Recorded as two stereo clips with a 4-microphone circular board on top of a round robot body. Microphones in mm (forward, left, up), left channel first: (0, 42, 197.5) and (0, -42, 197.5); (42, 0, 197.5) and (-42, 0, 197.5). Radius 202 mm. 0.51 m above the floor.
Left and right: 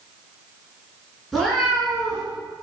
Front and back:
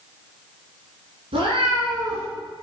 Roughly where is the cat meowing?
Behind.